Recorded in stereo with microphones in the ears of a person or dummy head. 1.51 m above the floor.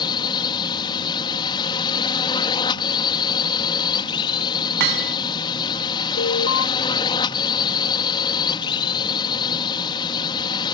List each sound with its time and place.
0.0 s a drone: 25° left (ahead or behind)
4.8 s hammering: 65° right (ahead or behind)
6.2 s an alarm: 60° left (ahead or behind)